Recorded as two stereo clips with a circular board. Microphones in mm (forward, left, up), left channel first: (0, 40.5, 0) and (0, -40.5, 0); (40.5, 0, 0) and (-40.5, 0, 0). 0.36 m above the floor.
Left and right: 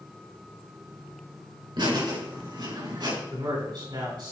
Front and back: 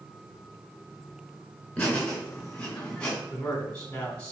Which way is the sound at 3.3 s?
75° right.